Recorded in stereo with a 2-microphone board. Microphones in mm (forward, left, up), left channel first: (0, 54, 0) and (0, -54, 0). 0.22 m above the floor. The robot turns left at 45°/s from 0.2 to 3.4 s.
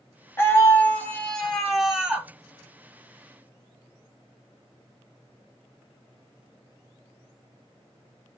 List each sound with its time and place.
0.4 s a scream: 25° left (ahead or behind), 1.0 m; by 2.3 s 10° right (ahead or behind), 1.0 m